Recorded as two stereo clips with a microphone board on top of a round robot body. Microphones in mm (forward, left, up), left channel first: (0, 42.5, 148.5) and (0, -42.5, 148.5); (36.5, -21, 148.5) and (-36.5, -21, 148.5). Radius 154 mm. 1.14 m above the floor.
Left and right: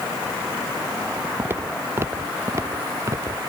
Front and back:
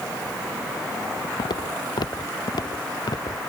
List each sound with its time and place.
1.4 s footsteps: 25° right; by 3.4 s 35° right